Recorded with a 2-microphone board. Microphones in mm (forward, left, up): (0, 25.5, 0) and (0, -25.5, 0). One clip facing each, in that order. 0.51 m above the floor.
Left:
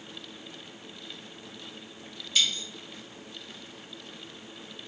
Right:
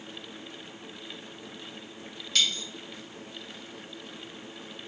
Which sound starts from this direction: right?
A dropped coin, at 2.4 s.